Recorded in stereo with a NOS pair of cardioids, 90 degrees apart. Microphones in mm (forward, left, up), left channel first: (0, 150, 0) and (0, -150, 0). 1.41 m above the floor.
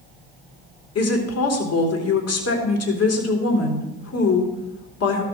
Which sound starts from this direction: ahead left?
A woman speaking, at 0.9 s.